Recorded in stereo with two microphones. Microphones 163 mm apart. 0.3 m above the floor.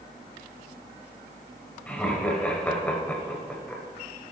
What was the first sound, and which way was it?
Laughter, 10° left (ahead or behind).